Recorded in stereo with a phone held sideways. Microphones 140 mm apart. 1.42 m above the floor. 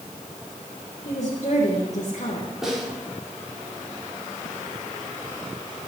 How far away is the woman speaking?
About 1.8 m.